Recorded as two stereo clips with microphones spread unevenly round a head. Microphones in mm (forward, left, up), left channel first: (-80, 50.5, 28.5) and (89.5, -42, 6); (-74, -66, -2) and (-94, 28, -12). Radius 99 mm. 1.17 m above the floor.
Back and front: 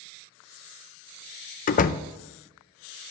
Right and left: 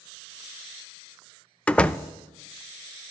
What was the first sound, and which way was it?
A door slam, 155° right.